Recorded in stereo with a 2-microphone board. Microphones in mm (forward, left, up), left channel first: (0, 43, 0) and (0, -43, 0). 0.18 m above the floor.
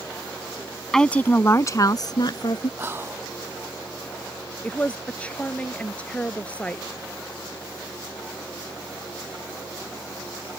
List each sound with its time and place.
0.9 s a woman speaking: 5° left (ahead or behind); by 2.7 s 60° left (ahead or behind)
2.8 s whispering: 25° right (ahead or behind)
4.6 s a woman speaking: 15° left (ahead or behind)